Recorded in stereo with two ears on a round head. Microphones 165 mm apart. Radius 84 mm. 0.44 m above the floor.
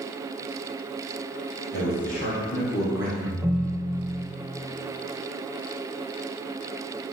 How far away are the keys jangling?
I don't hear keys jangling.